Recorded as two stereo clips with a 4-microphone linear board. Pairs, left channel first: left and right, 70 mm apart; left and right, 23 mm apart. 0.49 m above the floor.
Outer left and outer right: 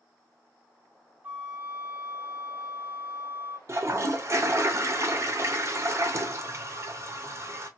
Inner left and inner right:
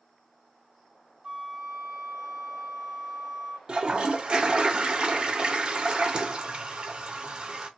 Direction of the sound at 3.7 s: 40° right (ahead or behind).